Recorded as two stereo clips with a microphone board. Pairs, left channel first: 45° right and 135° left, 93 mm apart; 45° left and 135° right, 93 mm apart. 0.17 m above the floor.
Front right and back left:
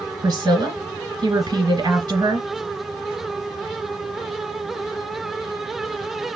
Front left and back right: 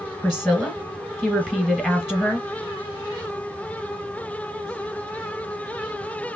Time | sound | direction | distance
0.2 | a woman speaking | 135° left | 1.4 m